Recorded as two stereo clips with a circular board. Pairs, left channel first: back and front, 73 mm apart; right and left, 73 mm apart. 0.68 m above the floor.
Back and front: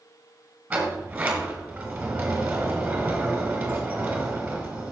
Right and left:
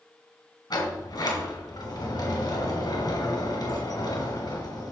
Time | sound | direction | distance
0.7 | a sliding door | 75° right | 2 m